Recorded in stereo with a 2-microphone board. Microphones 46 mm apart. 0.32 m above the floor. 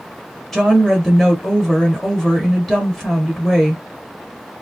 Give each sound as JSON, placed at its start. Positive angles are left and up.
{"t": 0.5, "sound": "a woman speaking", "side_deg": 10, "distance_m": 1.3}